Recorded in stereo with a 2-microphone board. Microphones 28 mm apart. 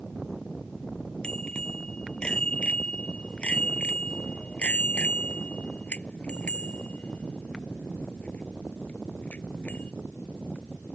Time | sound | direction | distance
1.2 | a bicycle bell | 40° left (ahead or behind) | ?